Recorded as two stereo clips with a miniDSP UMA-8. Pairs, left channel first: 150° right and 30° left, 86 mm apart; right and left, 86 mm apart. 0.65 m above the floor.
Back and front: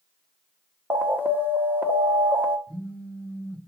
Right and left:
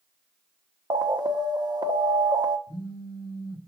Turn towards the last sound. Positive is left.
turn(degrees=-80)